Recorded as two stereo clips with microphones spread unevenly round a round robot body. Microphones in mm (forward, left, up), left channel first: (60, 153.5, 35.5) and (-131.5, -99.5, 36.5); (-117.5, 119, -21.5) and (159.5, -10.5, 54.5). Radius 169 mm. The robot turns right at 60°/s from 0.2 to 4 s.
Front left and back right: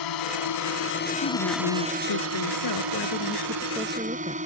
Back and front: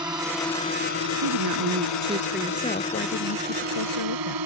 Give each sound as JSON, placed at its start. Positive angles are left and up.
{"t": 0.0, "sound": "a drone", "azimuth_deg": 55}
{"t": 1.2, "sound": "a woman speaking", "azimuth_deg": -10}